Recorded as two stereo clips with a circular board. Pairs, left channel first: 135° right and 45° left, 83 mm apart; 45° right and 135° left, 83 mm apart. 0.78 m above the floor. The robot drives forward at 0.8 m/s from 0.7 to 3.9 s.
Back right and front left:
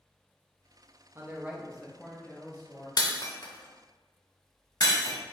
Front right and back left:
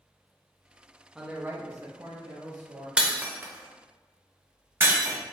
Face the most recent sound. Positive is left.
turn(degrees=-165)